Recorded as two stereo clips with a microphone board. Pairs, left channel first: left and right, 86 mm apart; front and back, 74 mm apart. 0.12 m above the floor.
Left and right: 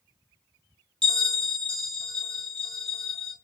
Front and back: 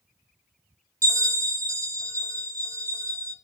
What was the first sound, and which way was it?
A bell, 170° left.